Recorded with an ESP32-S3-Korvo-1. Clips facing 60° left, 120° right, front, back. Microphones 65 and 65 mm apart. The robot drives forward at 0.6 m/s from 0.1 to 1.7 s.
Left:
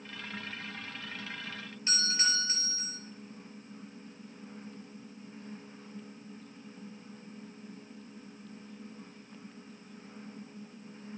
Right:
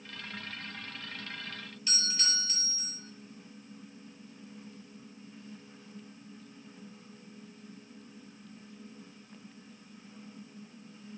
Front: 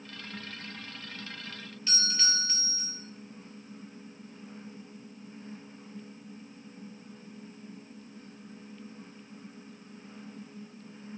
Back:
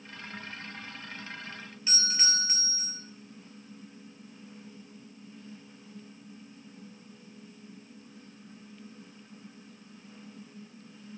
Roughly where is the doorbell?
Left.